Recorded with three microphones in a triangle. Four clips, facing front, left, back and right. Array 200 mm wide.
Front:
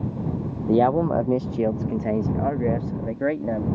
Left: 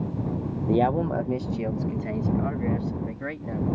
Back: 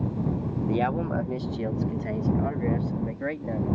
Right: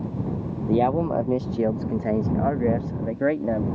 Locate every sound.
0.7 s a man speaking: 5° left; by 3.6 s 60° right